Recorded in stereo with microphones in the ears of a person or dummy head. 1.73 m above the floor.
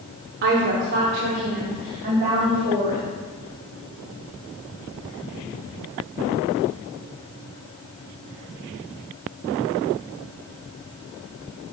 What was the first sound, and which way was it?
A woman speaking, 40° right (ahead or behind).